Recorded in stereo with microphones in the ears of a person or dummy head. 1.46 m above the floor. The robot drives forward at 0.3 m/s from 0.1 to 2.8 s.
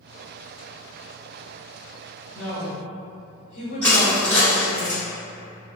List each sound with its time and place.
2.3 s a woman speaking: 45° left (ahead or behind), 1.2 m; by 4.8 s 40° left (ahead or behind), 1.3 m
3.8 s crushing: 10° left (ahead or behind), 1.1 m